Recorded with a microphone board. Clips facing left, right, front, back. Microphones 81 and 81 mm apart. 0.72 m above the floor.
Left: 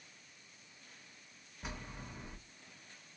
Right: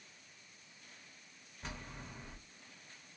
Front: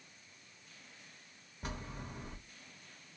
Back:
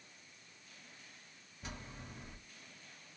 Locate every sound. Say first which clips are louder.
1.6 s a bell: left 1 dB, front 5 dB; 10° left, 0.8 m